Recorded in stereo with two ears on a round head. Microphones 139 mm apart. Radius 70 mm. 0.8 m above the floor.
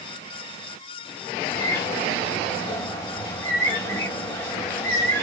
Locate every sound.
1.5 s a bird: 20° left (ahead or behind), 2 m